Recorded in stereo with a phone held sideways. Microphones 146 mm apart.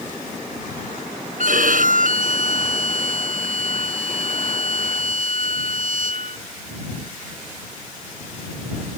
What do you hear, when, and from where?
1.4 s a violin: 65° right (ahead or behind)